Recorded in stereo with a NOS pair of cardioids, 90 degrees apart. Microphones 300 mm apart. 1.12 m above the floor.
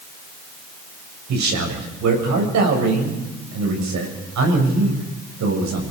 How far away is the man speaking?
About 7.5 m.